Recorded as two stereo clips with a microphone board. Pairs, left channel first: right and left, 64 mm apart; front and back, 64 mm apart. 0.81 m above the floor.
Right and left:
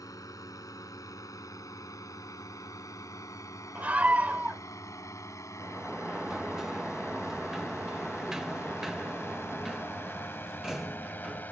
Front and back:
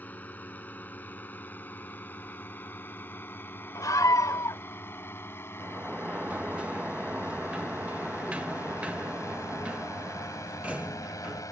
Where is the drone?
65° right; by 11.5 s 30° right.